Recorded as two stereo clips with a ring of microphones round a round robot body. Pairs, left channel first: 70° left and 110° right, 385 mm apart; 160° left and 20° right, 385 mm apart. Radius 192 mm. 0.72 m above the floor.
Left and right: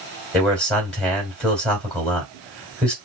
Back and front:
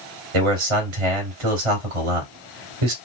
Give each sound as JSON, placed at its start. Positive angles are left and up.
{"t": 0.3, "sound": "a man speaking", "azimuth_deg": -20, "distance_m": 2.5}